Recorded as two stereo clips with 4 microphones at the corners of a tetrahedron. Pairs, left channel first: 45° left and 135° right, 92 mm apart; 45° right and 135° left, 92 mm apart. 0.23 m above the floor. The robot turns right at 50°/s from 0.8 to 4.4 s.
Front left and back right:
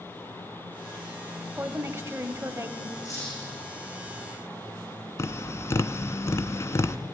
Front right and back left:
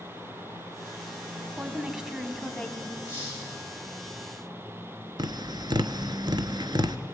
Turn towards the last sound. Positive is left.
turn(degrees=100)